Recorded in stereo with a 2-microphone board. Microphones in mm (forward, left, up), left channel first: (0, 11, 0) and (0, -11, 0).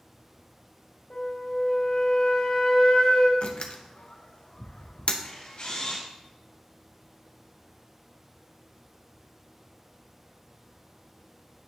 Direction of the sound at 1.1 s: 60° left (ahead or behind).